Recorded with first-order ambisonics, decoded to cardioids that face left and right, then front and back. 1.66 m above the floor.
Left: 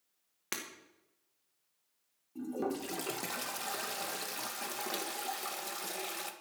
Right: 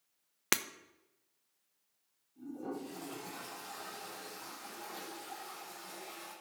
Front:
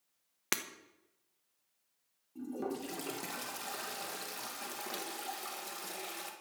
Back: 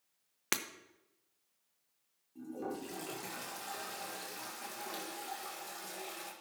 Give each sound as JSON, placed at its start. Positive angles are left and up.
{"t": 0.5, "sound": "breaking glass", "azimuth_deg": -90, "distance_m": 0.8}
{"t": 2.4, "sound": "a toilet flushing", "azimuth_deg": 70, "distance_m": 1.9}